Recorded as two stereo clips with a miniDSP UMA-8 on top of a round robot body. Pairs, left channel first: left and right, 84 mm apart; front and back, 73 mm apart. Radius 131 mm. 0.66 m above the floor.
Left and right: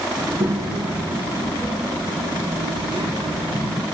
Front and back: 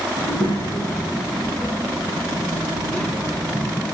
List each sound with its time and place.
0.2 s a child speaking: 40° right, 6.5 m; by 3.8 s 90° right, 6 m